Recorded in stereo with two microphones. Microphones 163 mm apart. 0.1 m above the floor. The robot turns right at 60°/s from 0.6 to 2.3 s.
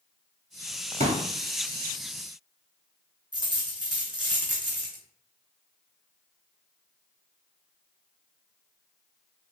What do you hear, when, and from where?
1.0 s a pop: 45° right (ahead or behind), 0.6 m; by 1.3 s 35° right (ahead or behind), 0.6 m
3.3 s a dropped coin: 25° right (ahead or behind), 1.4 m